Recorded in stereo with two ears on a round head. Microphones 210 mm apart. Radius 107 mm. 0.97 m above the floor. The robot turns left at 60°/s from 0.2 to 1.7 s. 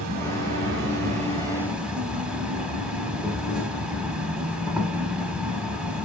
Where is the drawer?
No drawer in this recording.